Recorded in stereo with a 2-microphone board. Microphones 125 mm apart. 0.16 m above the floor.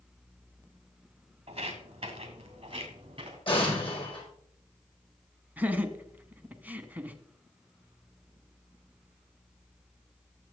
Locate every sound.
1.5 s footsteps: 50° right (ahead or behind), 3 m; by 3.4 s 45° right (ahead or behind), 5 m
3.5 s an explosion: 45° left (ahead or behind), 5 m
5.6 s laughter: 15° right (ahead or behind), 1.1 m